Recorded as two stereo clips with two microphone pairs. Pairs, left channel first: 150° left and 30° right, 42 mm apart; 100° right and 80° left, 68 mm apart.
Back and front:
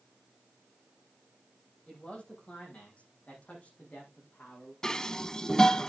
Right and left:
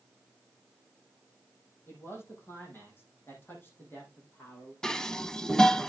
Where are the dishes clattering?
170° right, 0.7 m.